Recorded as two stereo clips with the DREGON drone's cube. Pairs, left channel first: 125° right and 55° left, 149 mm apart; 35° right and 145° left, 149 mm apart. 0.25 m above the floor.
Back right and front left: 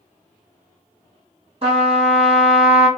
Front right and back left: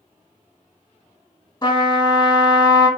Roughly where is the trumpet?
Ahead.